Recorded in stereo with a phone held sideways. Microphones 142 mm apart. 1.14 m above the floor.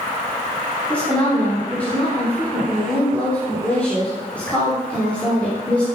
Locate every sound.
0.9 s a woman speaking: 10° left (ahead or behind), 4 m